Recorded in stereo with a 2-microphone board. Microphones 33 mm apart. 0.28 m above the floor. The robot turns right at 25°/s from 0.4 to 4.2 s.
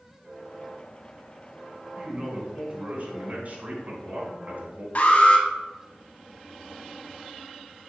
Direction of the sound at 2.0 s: 140° right.